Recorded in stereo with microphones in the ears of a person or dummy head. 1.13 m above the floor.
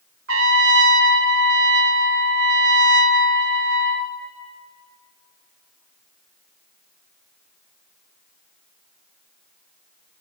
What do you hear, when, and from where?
0.3 s a trumpet: 75° right (ahead or behind), 1.4 m